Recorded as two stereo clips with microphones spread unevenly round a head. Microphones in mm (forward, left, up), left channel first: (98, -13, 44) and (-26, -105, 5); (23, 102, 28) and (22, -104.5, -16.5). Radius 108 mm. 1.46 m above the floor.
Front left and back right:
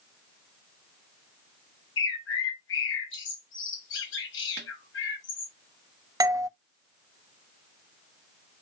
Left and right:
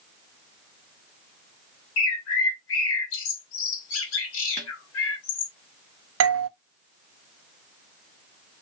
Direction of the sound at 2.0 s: 70° left.